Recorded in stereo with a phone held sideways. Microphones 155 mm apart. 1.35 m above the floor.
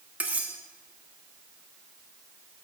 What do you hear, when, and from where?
0.2 s cutlery clinking: 10° right (ahead or behind), 1.4 m